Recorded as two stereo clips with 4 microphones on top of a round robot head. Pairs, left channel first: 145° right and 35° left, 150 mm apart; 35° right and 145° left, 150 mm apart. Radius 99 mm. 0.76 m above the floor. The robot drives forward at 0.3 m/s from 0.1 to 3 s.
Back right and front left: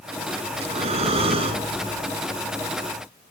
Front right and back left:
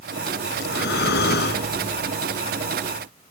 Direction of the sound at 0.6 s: 15° right.